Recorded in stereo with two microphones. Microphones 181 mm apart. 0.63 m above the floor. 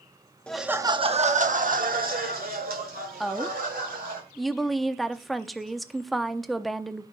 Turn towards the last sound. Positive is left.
turn(degrees=0)  # may be behind; listen again after turning